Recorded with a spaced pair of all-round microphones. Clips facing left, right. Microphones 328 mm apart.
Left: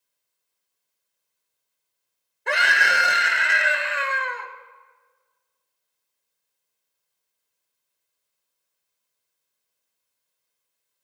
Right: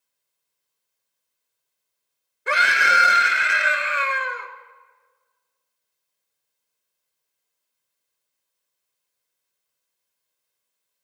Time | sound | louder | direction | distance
2.5 | a scream | right 1 dB | 5° right (ahead or behind) | 0.9 m